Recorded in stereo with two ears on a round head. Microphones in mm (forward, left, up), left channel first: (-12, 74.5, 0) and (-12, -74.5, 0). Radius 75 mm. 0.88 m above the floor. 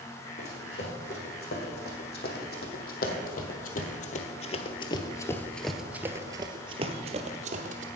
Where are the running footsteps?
65° left (ahead or behind), 3 m; by 7.9 s 50° right (ahead or behind), 1.5 m.